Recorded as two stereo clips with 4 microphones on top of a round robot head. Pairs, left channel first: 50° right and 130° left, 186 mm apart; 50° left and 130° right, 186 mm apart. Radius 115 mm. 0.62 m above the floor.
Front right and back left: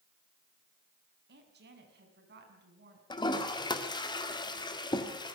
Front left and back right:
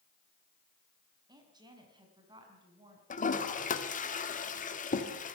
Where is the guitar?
I don't hear a guitar.